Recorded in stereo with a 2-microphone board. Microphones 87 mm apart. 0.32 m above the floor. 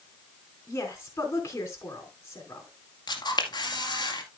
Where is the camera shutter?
50° left (ahead or behind), 1.9 m.